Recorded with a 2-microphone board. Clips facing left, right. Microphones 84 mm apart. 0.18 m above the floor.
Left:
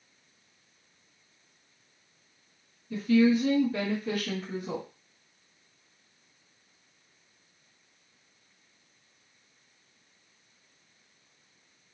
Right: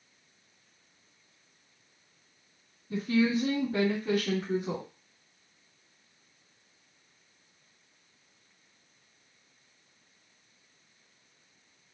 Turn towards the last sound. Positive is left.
turn(degrees=-30)  # may be behind; listen again after turning